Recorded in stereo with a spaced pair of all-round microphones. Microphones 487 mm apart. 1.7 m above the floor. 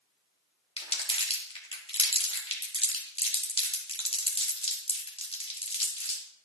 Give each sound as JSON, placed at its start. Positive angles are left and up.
{"t": 0.8, "sound": "crumpling", "side_deg": 10, "distance_m": 1.4}